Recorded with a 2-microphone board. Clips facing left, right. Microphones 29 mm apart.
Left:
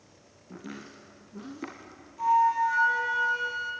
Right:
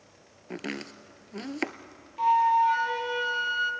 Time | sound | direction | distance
0.5 | chopping | 70° right (ahead or behind) | 1.0 m
2.2 | a flute | 40° right (ahead or behind) | 1.8 m